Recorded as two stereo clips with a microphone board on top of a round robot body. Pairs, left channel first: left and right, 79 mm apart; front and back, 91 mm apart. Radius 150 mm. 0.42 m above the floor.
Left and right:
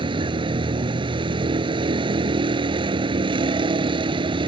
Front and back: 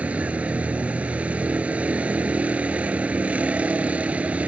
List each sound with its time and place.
0.0 s a vehicle: 105° right